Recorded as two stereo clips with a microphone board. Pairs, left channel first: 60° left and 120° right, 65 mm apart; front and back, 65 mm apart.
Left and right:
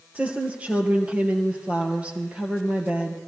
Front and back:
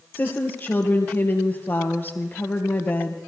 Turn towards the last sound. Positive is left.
turn(degrees=-55)